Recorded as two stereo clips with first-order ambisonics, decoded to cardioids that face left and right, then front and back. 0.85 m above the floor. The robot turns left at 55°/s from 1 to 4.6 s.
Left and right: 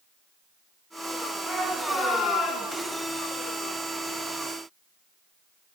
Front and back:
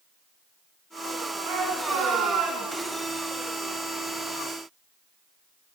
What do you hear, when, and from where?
1.4 s a shout: 175° right, 3.5 m; by 2.9 s 105° left, 3.5 m